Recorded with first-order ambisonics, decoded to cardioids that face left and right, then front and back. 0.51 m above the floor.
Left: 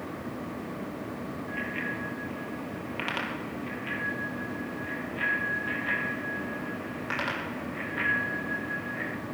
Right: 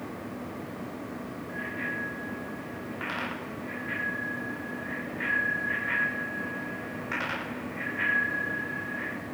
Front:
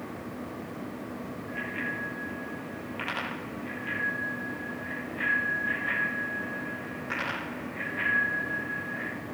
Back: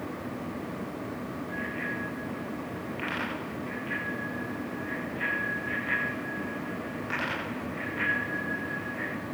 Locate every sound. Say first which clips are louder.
1.5 s a bicycle bell: even, front 1 dB; 70° left, 8.5 m; by 9.1 s 100° left, 16 m